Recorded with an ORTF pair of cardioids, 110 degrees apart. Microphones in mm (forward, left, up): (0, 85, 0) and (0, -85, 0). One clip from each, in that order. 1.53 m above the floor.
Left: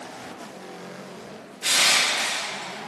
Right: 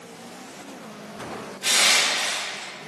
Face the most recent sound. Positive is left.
turn(degrees=10)